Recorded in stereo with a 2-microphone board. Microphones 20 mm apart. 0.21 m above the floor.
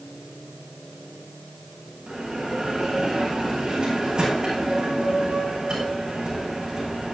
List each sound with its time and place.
2.1 s a bell: 45° right (ahead or behind), 10 m